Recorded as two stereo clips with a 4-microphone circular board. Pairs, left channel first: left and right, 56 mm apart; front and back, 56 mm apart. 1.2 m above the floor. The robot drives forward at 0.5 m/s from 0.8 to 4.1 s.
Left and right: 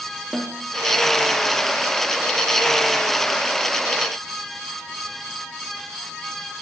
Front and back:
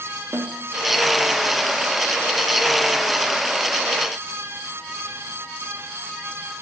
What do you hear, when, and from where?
0.3 s a snare drum: 170° left, 3 m